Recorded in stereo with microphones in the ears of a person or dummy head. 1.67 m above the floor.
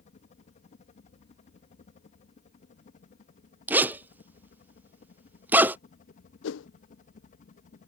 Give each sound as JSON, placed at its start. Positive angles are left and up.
{"t": 0.0, "sound": "a helicopter", "side_deg": 40}
{"t": 3.7, "sound": "a zipper", "side_deg": -10}
{"t": 6.4, "sound": "a whoosh", "side_deg": 70}